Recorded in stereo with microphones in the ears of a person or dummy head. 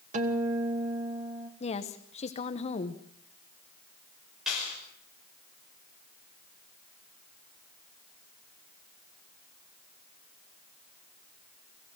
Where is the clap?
Centre (ahead or behind), 6 m.